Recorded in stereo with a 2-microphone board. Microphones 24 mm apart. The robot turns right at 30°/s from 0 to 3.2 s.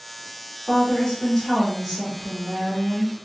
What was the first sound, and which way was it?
A woman speaking, 145° left.